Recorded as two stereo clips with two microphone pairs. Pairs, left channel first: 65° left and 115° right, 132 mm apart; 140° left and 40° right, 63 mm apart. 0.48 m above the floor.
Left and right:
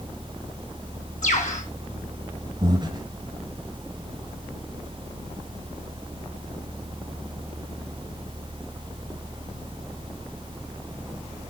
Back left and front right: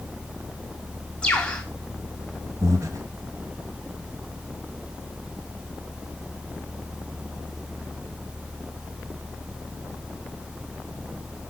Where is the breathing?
60° right, 1.4 m.